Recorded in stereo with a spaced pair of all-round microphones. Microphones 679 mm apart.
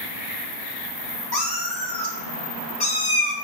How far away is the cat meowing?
About 1.5 m.